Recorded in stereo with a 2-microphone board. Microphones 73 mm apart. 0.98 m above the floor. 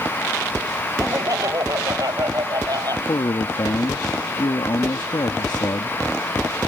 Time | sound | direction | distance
1.0 | laughter | 50° right (ahead or behind) | ?
3.1 | a man speaking | 70° left (ahead or behind) | ?